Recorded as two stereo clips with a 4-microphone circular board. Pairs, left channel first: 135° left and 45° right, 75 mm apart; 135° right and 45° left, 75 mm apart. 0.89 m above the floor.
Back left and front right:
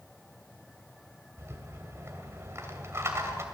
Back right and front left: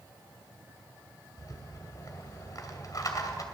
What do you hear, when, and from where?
1.4 s a rattle: 100° right, 2.5 m